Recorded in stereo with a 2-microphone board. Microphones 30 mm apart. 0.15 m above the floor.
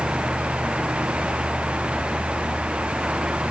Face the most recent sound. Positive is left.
No sound to turn to.